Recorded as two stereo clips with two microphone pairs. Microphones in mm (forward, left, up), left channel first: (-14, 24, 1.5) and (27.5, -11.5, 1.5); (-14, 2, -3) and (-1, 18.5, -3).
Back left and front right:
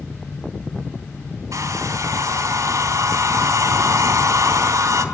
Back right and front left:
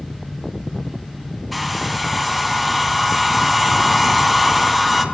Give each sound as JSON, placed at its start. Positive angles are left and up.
{"t": 1.5, "sound": "a hair dryer", "azimuth_deg": -40, "distance_m": 3.5}